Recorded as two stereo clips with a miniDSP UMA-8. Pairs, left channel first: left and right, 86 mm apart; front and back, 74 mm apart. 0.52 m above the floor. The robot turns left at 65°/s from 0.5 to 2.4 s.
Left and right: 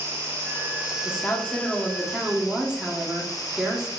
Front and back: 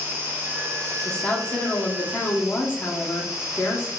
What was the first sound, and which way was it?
An insect, 130° right.